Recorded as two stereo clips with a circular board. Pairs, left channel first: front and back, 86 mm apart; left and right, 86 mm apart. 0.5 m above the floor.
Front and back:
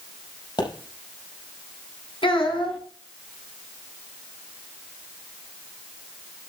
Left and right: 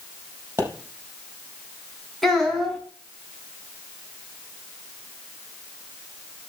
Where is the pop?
30° right, 5 m.